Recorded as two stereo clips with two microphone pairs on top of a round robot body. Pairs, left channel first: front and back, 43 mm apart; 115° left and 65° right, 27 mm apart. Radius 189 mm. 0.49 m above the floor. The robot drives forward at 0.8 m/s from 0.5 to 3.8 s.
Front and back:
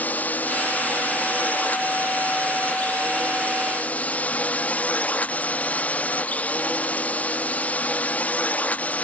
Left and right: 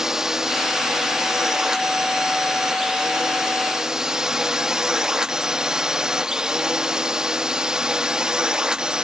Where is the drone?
5° right; by 9.0 s 30° right.